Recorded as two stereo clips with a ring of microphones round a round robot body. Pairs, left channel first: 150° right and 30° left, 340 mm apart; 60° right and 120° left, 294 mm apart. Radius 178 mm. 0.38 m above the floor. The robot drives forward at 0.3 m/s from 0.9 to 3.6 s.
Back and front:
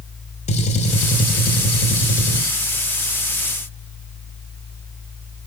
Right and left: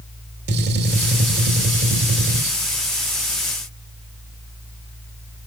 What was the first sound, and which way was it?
A gunshot, 150° left.